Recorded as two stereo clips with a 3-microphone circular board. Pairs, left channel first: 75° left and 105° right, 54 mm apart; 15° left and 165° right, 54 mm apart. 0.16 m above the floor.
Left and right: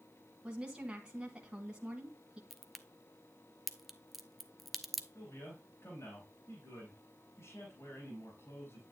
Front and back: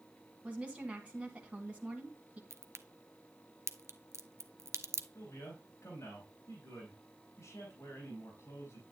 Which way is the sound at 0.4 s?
150° right.